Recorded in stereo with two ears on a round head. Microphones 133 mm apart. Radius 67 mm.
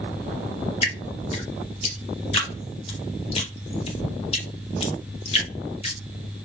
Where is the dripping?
40° left (ahead or behind), 1.3 m.